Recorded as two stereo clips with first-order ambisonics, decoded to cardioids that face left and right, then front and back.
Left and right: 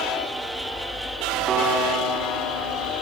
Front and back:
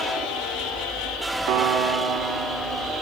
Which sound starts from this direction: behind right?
A piano, at 1.5 s.